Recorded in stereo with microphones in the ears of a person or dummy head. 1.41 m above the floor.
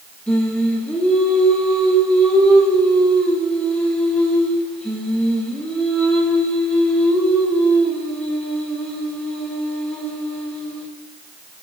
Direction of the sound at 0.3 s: 10° left (ahead or behind).